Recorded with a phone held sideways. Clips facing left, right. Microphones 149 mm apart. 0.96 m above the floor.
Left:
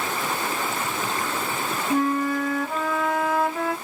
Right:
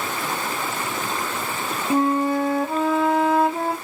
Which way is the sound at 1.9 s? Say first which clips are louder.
Right 3 dB; 25° right (ahead or behind).